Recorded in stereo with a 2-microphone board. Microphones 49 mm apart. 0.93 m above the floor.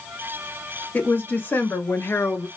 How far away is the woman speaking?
About 1.4 m.